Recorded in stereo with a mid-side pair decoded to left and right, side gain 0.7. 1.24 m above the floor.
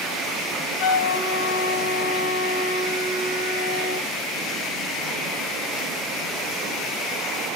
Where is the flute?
65° left, 1.0 m.